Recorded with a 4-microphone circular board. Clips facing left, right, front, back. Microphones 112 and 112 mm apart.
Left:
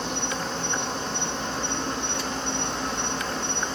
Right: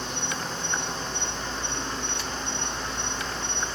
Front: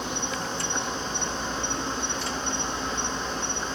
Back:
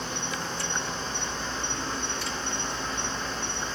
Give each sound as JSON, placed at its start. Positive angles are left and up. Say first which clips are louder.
{"t": 0.0, "sound": "an insect", "louder": "left 3 dB, front 2 dB", "azimuth_deg": 75, "distance_m": 2.5}